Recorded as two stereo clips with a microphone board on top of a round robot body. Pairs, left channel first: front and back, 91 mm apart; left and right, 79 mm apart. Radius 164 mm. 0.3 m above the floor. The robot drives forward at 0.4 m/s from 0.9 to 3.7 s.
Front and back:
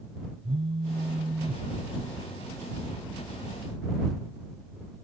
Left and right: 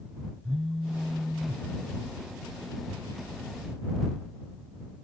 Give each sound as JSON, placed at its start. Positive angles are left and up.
{"t": 0.4, "sound": "a phone buzzing", "azimuth_deg": -175}